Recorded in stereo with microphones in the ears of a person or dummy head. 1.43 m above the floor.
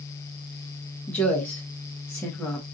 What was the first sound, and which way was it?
A woman speaking, 5° left (ahead or behind).